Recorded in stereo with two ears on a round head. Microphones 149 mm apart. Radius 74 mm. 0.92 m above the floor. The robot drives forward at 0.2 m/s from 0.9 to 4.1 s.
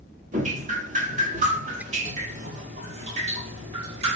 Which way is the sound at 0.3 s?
45° right (ahead or behind).